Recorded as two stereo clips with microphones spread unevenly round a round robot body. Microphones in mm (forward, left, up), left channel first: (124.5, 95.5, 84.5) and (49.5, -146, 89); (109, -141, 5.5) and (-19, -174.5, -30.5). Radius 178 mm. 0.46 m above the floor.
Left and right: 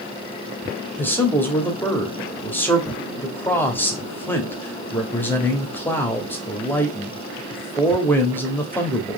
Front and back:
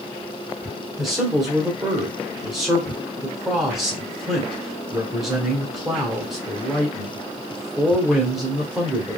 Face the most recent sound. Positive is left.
turn(degrees=145)